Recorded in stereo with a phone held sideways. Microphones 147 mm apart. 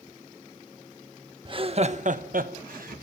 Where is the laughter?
35° right (ahead or behind), 1.2 m; by 3.0 s 85° right, 1.4 m.